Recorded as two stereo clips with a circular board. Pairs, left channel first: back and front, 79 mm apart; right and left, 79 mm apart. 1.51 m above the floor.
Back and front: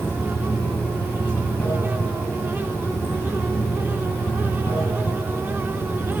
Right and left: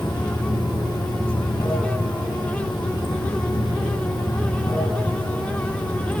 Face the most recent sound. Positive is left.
turn(degrees=-110)